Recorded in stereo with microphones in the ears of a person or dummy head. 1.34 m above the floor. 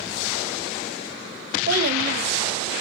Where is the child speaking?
45° right (ahead or behind), 1.3 m.